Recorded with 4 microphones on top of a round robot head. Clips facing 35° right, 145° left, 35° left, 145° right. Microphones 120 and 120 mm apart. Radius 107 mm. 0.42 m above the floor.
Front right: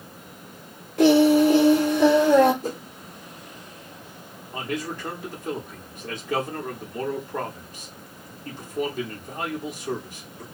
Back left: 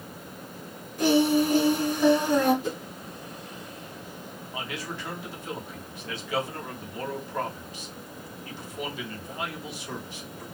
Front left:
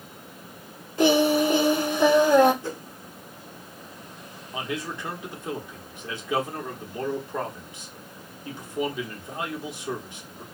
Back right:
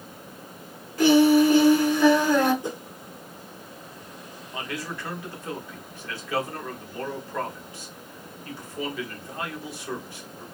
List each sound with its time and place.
1.0 s singing: 30° right, 1.1 m
2.6 s a whoosh: 75° right, 0.9 m
4.5 s a man speaking: 25° right, 1.3 m